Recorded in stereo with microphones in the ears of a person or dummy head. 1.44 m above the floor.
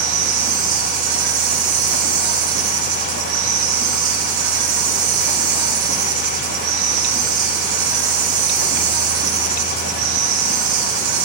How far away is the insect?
About 1.7 m.